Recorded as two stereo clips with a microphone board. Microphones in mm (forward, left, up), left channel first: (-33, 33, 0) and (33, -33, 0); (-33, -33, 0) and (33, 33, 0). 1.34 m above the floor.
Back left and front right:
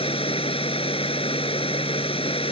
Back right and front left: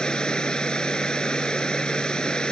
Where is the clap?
No clap in this recording.